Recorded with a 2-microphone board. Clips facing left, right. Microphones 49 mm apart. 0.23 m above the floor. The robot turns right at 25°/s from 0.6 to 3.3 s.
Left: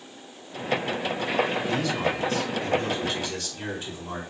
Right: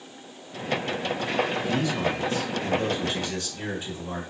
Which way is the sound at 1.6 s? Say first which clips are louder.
Even; 25° right (ahead or behind).